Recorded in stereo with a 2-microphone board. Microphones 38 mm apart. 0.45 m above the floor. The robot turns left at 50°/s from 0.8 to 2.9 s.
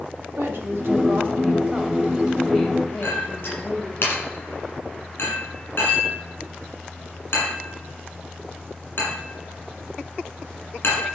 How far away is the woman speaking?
About 2.5 m.